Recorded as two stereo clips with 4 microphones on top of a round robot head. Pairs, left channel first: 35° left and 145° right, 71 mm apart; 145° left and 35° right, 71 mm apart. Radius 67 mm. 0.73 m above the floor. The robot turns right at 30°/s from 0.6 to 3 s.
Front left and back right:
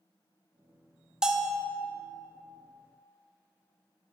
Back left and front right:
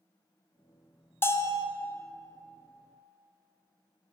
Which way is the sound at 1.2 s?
145° left.